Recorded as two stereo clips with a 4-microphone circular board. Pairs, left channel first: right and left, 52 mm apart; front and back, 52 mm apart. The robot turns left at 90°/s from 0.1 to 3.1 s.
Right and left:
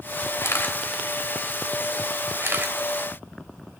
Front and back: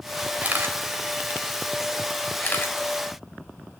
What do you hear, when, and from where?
0.4 s a camera shutter: 115° right, 2 m; by 2.7 s 35° left, 2 m